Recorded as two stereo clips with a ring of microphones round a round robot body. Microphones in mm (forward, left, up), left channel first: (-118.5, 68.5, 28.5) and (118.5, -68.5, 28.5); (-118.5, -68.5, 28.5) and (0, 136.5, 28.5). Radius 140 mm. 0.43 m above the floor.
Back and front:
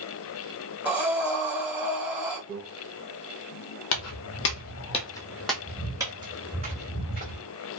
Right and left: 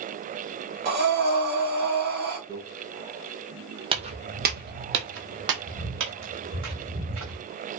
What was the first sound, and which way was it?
Breathing, 55° left.